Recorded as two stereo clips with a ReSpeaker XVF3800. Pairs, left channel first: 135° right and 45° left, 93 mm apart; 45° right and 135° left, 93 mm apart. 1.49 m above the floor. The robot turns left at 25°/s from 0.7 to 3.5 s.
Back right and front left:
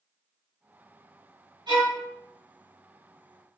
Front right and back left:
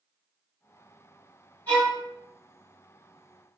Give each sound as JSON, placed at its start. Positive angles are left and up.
{"t": 1.7, "sound": "a violin", "azimuth_deg": 25, "distance_m": 1.3}